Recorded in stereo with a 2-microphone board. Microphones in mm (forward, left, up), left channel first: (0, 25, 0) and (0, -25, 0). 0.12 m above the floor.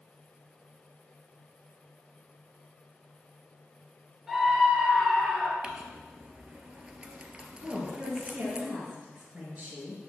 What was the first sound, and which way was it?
A scream, 5° right (ahead or behind).